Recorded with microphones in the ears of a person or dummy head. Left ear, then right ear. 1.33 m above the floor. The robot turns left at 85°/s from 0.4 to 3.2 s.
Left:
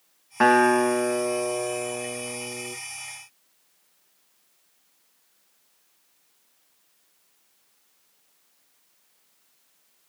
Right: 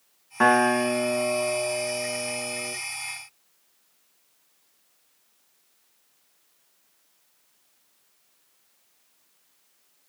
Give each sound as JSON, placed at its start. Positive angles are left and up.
{"t": 0.4, "sound": "a guitar", "azimuth_deg": 170, "distance_m": 0.5}